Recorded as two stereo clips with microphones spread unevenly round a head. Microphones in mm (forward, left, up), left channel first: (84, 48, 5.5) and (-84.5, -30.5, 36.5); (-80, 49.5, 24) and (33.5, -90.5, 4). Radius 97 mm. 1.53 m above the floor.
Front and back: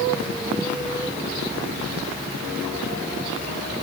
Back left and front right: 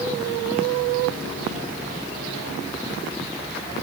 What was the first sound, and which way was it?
Only background noise.